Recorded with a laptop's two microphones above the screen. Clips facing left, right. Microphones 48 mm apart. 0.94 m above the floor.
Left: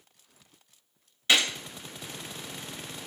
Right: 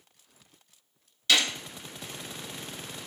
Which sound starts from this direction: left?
A gunshot, at 1.3 s.